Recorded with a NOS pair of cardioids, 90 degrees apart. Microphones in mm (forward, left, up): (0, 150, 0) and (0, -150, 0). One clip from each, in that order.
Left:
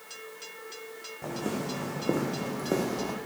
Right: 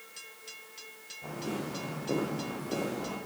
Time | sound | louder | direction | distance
1.2 | footsteps | left 4 dB | 60° left | 5 m